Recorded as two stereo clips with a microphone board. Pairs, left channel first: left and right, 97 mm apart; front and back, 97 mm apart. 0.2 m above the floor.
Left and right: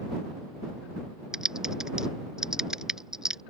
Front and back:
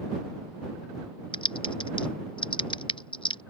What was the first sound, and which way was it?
Typing on a keyboard, 5° right.